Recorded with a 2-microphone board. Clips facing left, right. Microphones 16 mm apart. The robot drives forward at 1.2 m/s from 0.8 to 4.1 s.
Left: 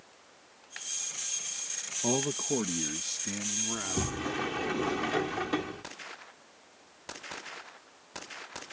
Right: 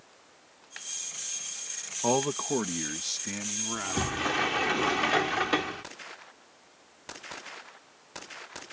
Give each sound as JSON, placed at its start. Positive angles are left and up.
{"t": 2.0, "sound": "a man speaking", "side_deg": -45}
{"t": 3.7, "sound": "a sliding door", "side_deg": -40}